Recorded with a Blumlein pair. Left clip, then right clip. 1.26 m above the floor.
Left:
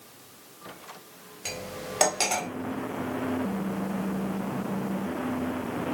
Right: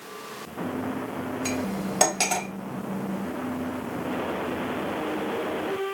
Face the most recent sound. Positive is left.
turn(degrees=0)